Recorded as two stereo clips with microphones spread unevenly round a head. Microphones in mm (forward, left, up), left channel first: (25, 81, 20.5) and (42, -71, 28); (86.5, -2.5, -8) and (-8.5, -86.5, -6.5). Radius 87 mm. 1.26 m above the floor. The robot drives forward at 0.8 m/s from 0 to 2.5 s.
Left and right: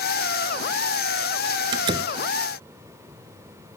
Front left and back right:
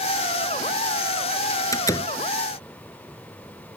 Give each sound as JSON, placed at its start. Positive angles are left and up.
{"t": 1.7, "sound": "a door slam", "azimuth_deg": -20}